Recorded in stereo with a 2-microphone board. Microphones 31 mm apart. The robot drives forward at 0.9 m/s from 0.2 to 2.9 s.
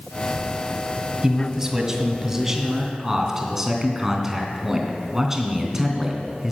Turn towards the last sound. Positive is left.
turn(degrees=-10)  # may be behind; listen again after turning